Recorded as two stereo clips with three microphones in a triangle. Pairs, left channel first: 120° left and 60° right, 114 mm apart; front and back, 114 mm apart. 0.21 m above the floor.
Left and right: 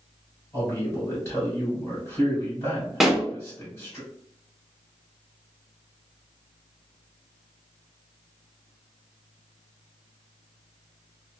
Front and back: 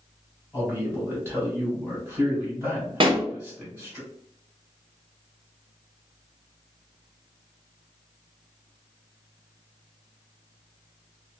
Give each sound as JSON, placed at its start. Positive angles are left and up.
{"t": 0.5, "sound": "a man speaking", "azimuth_deg": 135, "distance_m": 1.7}
{"t": 3.0, "sound": "a pop", "azimuth_deg": -145, "distance_m": 0.8}